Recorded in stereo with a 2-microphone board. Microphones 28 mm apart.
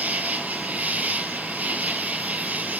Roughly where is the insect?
Right.